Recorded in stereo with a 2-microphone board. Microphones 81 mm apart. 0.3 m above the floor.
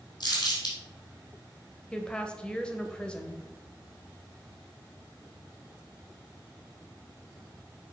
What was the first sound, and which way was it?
Crumpling, 65° left (ahead or behind).